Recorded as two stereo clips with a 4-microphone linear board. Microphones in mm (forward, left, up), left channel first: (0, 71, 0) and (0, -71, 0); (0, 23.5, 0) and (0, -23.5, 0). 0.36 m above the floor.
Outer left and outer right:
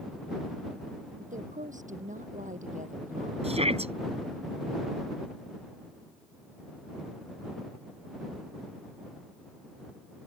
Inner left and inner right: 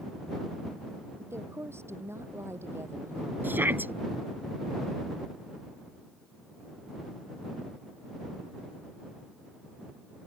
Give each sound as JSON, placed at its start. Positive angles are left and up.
{"t": 1.2, "sound": "a woman speaking", "side_deg": -70}
{"t": 3.4, "sound": "a shout", "side_deg": -50}